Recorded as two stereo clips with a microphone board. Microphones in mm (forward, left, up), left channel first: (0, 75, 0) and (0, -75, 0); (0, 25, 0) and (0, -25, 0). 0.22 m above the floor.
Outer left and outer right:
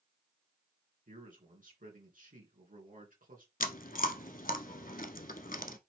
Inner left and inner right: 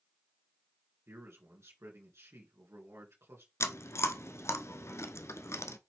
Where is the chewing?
65° left (ahead or behind), 0.8 m.